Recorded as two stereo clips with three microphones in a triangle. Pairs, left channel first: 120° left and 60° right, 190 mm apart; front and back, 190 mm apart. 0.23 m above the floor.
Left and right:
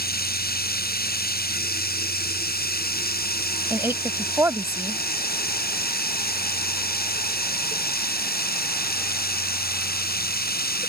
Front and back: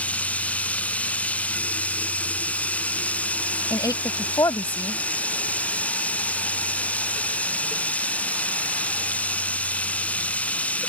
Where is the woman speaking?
15° right.